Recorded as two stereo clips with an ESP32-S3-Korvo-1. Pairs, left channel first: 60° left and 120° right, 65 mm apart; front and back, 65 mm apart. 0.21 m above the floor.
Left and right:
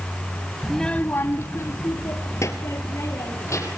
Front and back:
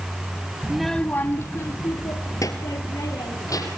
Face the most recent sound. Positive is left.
turn(degrees=25)